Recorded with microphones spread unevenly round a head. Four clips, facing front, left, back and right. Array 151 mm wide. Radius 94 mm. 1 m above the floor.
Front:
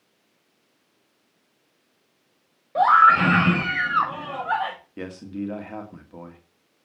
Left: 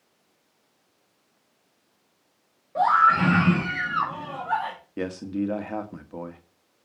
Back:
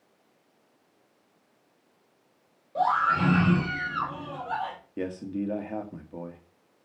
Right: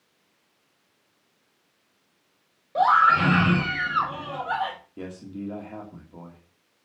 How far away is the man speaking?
About 2 m.